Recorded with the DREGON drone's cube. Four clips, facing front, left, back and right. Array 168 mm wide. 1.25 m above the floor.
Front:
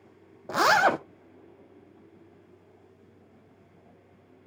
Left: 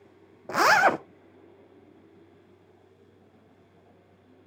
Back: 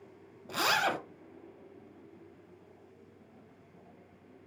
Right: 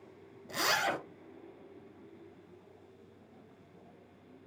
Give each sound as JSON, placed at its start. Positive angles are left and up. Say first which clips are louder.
{"t": 0.5, "sound": "a zipper", "louder": "left 12 dB, front 9 dB", "azimuth_deg": 55, "distance_m": 0.6}